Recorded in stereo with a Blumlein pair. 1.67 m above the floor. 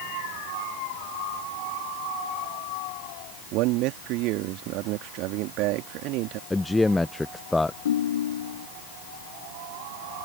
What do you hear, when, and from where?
3.5 s a man speaking: 40° right
6.5 s a man speaking: 5° left
7.8 s a ringtone: 65° left